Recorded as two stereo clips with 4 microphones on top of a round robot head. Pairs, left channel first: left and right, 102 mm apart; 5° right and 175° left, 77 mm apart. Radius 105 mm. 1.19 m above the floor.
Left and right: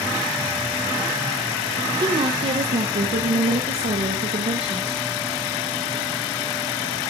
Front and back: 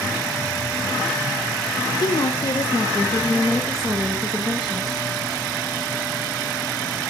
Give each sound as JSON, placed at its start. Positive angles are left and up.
{"t": 2.0, "sound": "a woman speaking", "azimuth_deg": -40, "distance_m": 1.1}